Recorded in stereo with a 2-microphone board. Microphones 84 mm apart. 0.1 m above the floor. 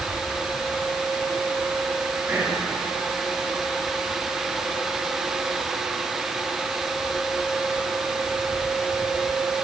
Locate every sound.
2.3 s whispering: 20° right (ahead or behind), 1.4 m